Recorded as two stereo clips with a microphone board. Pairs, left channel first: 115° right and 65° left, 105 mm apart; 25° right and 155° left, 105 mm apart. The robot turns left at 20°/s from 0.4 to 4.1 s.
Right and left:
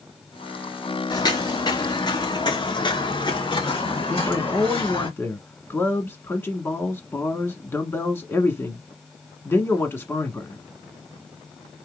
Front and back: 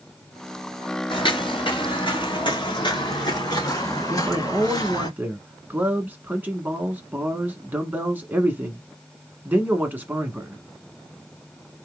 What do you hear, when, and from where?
1.1 s footsteps: 60° right, 1.8 m; by 5.1 s 70° right, 3.5 m
4.1 s a man speaking: 150° right, 1.2 m